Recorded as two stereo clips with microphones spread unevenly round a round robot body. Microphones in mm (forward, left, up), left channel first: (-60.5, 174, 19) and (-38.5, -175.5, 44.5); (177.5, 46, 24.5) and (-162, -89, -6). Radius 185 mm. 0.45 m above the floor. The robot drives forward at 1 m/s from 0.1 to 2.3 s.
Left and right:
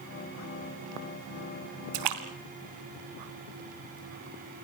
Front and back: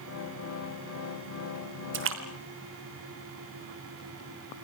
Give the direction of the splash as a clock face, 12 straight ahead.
3 o'clock.